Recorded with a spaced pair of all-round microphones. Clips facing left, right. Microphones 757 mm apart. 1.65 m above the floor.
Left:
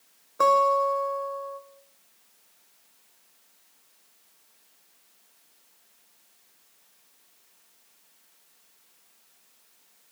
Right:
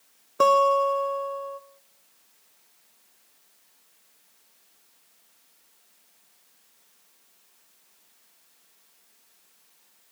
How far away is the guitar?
About 1.6 m.